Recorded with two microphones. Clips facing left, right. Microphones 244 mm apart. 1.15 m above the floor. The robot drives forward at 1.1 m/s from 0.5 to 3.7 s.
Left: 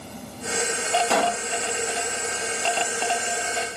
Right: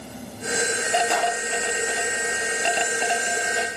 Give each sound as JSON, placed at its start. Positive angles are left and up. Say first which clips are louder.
{"t": 1.1, "sound": "a pop", "louder": "left 2 dB", "side_deg": 75}